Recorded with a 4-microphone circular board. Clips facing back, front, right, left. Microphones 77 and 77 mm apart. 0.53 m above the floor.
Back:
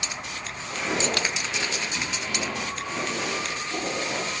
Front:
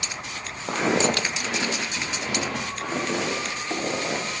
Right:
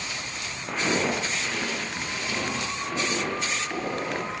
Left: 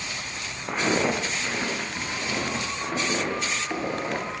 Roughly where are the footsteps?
Ahead.